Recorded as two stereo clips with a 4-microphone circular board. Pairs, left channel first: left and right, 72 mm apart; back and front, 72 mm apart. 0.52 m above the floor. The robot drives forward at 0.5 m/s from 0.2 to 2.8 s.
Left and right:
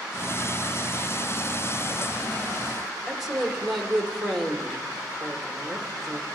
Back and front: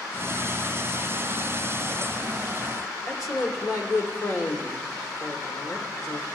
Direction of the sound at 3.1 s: Straight behind.